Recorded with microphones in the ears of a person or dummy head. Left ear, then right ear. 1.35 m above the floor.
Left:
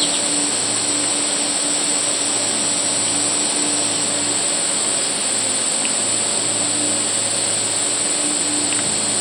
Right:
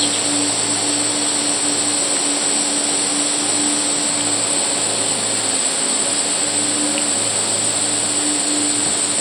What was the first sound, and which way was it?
An insect, 15° left (ahead or behind).